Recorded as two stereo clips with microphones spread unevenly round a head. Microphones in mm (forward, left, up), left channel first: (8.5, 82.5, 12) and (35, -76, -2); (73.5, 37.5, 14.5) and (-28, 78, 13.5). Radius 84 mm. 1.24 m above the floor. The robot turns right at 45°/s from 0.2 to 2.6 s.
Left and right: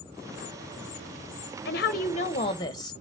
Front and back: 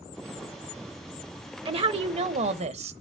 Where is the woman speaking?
125° left, 1.0 m; by 2.9 s 170° left, 1.0 m.